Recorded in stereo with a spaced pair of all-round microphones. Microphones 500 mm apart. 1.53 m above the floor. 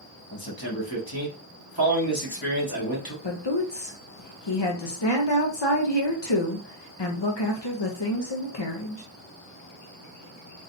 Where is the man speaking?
45° left (ahead or behind), 1.8 m.